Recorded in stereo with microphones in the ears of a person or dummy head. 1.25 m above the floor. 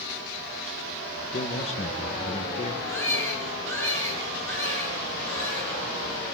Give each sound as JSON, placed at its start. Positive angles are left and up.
{"t": 1.3, "sound": "a man speaking", "side_deg": 30, "distance_m": 1.5}
{"t": 2.9, "sound": "a baby crying", "side_deg": 15, "distance_m": 10.0}